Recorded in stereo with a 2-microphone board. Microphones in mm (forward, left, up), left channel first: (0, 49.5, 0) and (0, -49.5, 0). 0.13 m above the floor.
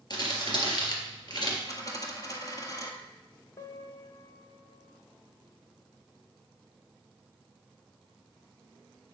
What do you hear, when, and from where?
0.1 s crumpling: 45° left (ahead or behind), 2.5 m
1.7 s a dropped coin: 35° left (ahead or behind), 1.6 m
3.6 s a piano: 35° left (ahead or behind), 1.1 m